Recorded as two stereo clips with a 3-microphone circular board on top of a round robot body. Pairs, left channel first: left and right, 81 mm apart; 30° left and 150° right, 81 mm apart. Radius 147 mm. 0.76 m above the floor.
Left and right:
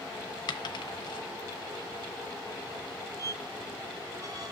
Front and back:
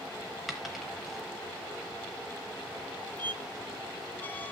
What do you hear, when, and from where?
0.5 s a dropped coin: 120° left, 0.9 m
3.2 s a squeak: 40° right, 0.9 m